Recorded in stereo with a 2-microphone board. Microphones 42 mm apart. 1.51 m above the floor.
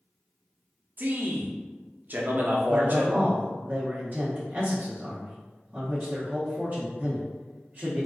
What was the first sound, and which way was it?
A man speaking, 45° right (ahead or behind).